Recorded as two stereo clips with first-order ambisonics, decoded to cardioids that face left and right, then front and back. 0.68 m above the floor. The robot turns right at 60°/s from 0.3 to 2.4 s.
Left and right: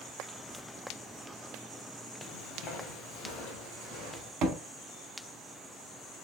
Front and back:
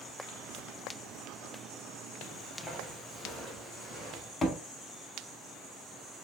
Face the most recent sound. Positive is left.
turn(degrees=-75)